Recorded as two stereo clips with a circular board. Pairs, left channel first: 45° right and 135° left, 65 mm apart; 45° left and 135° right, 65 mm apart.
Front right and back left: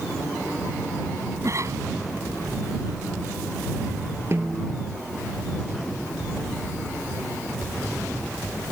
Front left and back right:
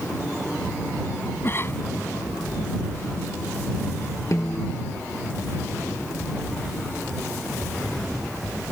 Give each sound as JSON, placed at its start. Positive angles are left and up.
{"t": 1.4, "sound": "a cough", "azimuth_deg": 95}
{"t": 4.3, "sound": "a snare drum", "azimuth_deg": 90}